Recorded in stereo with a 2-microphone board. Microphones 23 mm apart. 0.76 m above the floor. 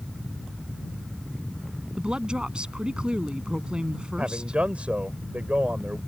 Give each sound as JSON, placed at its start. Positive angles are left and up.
{"t": 2.0, "sound": "a woman speaking", "side_deg": -45}
{"t": 4.2, "sound": "a man speaking", "side_deg": -70}